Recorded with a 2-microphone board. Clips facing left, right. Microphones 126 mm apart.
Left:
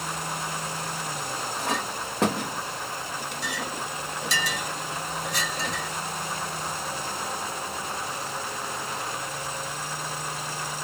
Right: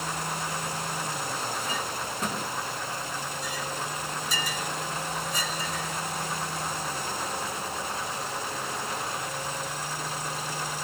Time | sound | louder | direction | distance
1.6 | a clink | left 3 dB | 70° left (ahead or behind) | 1.4 m